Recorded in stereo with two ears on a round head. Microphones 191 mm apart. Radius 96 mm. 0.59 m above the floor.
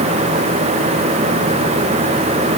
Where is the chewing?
I don't hear chewing.